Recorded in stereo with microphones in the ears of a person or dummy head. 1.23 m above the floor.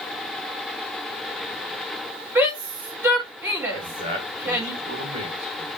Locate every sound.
2.4 s a shout: 10° right (ahead or behind), 3.5 m
3.7 s a man speaking: 35° right (ahead or behind), 3 m